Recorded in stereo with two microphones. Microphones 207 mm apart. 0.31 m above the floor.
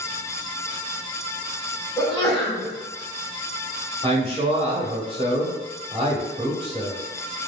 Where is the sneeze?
20° left (ahead or behind), 1.3 m.